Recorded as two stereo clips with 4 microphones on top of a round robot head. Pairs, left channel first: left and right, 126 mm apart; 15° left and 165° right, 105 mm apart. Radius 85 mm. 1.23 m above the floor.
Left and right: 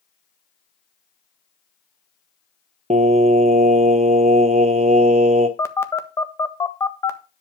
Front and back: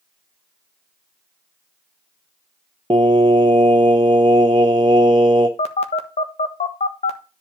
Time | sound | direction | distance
2.9 | singing | 115° right | 0.7 m
5.6 | a phone buzzing | 20° left | 1.4 m